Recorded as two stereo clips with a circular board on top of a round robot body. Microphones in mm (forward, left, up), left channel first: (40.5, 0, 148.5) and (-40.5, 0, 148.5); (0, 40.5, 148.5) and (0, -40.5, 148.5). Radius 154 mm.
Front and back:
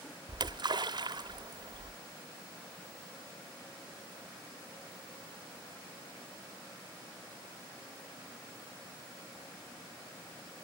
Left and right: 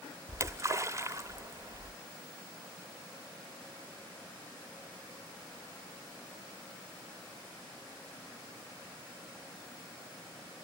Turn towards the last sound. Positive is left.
turn(degrees=-145)